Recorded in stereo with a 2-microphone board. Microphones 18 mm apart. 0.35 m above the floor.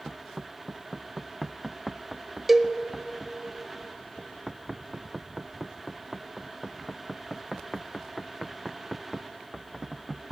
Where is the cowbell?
15° right (ahead or behind), 0.6 m.